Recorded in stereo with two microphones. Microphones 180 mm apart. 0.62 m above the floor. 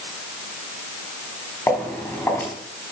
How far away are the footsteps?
About 3 m.